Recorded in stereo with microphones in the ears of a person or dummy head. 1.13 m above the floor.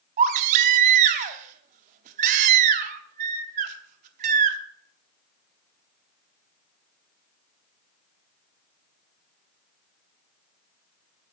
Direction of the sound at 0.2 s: 35° right (ahead or behind).